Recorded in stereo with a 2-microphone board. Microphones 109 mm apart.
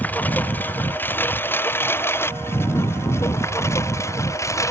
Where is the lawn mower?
15° left (ahead or behind); by 4.7 s 25° left (ahead or behind).